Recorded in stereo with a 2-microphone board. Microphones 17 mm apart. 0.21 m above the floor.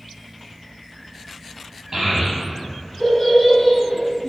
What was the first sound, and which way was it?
A child speaking, 35° right (ahead or behind).